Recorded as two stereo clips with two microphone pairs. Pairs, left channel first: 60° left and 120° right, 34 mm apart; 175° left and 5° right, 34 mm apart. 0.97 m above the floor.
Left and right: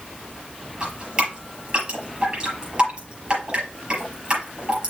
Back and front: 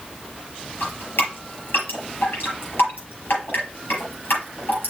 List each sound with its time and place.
0.8 s dripping: 175° left, 6 m